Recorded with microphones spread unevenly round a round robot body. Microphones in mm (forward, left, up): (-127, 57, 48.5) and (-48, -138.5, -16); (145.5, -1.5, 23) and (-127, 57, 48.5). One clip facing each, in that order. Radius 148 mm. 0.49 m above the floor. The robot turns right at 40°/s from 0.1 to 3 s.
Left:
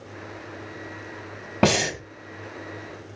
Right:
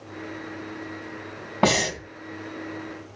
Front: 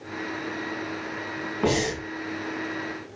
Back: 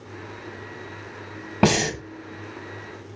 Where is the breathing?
170° left, 2 m; by 2.0 s 175° right, 2 m.